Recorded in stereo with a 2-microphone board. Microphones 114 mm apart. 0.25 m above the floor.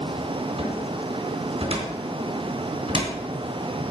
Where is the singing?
I don't hear singing.